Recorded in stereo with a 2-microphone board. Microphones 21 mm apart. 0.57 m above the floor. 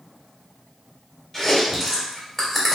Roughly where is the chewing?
Centre.